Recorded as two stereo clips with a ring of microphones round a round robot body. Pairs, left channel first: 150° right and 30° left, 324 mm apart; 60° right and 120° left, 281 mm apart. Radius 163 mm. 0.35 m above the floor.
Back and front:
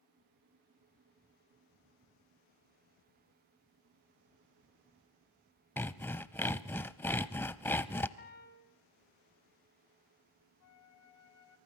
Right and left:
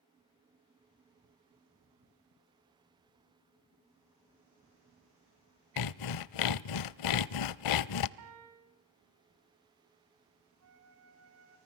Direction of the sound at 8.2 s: 150° left.